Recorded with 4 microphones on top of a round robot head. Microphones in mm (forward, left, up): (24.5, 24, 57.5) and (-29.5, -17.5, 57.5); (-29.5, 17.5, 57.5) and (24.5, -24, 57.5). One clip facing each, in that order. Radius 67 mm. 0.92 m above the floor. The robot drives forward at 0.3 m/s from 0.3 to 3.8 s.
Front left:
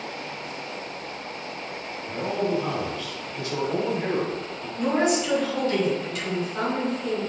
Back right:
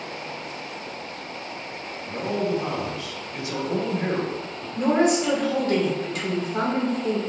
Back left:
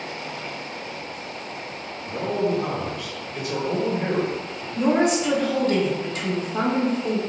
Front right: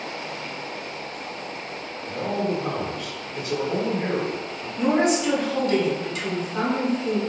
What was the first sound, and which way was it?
A man speaking, 140° left.